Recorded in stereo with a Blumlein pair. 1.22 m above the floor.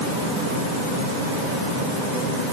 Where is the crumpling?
I don't hear crumpling.